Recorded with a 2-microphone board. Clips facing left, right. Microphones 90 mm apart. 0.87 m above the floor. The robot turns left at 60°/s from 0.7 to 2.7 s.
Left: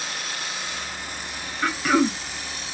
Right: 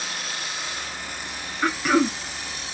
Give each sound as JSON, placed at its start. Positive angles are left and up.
{"t": 1.6, "sound": "throat clearing", "azimuth_deg": -165, "distance_m": 0.8}